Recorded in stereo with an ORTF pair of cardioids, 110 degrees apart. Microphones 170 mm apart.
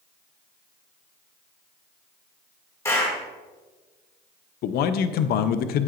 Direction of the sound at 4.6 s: 65° left.